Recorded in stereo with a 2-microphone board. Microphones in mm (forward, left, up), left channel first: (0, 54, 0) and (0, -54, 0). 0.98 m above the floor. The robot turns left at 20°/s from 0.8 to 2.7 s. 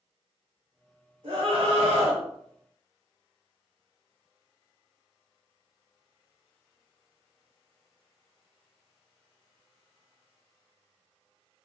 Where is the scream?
60° right (ahead or behind), 1.7 m; by 2.2 s 75° right (ahead or behind), 1.7 m.